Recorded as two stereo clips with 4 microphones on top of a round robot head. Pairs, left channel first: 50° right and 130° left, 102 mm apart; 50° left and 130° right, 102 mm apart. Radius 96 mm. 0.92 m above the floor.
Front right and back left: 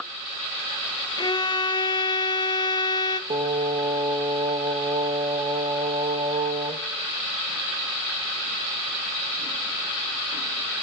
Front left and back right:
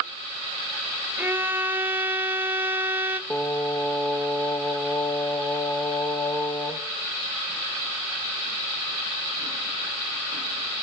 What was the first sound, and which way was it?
A violin, 70° right.